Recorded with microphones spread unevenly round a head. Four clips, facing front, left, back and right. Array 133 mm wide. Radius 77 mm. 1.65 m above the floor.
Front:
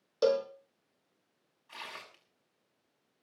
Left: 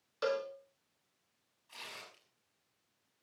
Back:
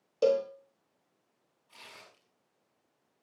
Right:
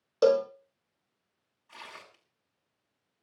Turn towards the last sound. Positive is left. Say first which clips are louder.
# right 4 dB, front 7 dB
turn(degrees=-15)